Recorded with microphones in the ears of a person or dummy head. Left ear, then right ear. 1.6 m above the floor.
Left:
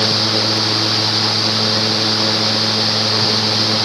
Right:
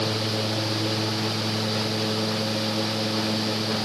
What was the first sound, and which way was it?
Only background noise.